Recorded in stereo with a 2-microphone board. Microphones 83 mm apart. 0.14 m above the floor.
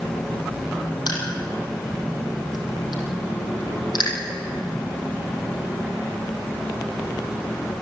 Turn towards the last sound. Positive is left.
turn(degrees=60)  # may be behind; listen again after turning